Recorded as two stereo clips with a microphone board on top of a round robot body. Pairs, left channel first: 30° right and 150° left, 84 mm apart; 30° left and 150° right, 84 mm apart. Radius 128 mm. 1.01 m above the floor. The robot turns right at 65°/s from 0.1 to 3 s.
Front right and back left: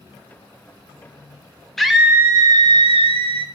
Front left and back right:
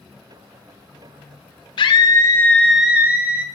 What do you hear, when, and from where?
1.8 s a scream: 55° left, 0.5 m; by 3.5 s 135° left, 0.5 m